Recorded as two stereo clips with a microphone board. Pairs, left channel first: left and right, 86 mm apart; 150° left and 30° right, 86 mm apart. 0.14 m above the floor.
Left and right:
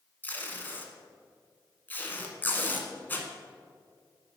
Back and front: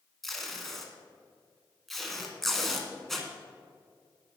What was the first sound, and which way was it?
Tape being pulled, 70° left.